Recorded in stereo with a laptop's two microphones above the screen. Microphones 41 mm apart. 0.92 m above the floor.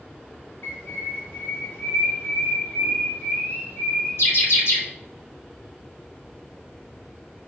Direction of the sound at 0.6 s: 75° left (ahead or behind).